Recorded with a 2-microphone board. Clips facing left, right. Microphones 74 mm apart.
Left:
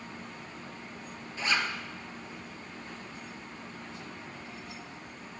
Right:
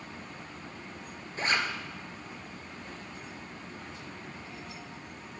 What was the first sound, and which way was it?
A zipper, 45° right (ahead or behind).